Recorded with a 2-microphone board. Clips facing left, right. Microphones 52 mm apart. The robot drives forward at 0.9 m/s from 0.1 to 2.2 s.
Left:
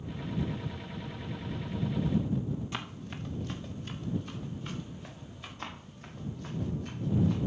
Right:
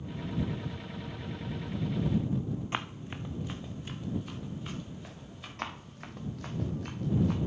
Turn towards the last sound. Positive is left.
turn(degrees=-70)  # may be behind; listen again after turning